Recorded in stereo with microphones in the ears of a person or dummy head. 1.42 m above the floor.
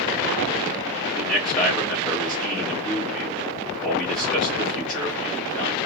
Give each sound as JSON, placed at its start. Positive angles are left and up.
{"t": 1.2, "sound": "a man speaking", "side_deg": 0, "distance_m": 2.5}